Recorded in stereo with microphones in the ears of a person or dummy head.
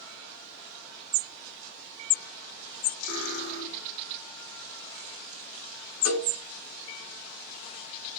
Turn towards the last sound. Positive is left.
turn(degrees=-65)  # may be behind; listen again after turning